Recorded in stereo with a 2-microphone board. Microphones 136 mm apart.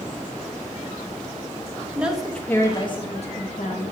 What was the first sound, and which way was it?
A woman speaking, 10° right (ahead or behind).